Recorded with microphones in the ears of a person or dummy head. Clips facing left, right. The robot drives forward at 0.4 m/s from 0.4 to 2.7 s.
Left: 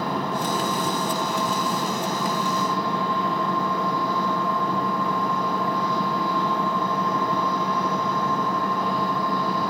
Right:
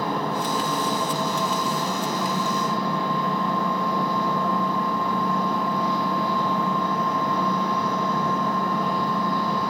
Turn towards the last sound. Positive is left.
turn(degrees=-20)  # may be behind; listen again after turning